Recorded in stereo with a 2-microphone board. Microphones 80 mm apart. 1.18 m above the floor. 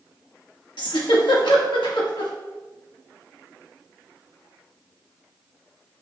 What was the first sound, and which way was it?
A giggle, 80° left.